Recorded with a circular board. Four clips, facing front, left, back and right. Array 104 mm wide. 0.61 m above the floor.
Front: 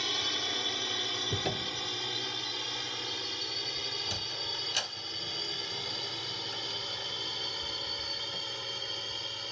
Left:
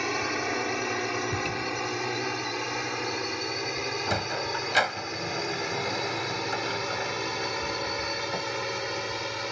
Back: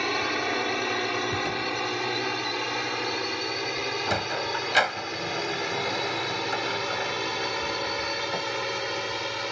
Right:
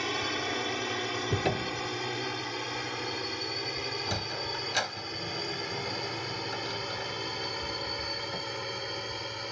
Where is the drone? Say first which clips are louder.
Left 4 dB, back 11 dB; 160° left; by 9.5 s 155° left.